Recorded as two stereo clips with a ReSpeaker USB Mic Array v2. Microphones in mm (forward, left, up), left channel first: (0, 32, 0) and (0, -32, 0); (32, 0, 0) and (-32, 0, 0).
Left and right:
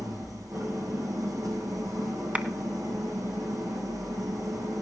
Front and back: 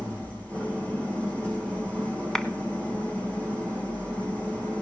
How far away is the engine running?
About 8 m.